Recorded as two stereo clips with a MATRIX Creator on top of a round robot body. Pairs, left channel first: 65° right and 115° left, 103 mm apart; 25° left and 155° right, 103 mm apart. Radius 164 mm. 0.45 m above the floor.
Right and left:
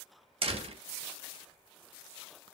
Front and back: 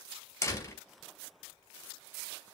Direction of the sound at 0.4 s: 85° left.